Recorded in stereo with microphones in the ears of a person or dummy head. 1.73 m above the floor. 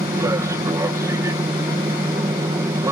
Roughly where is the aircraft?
Centre.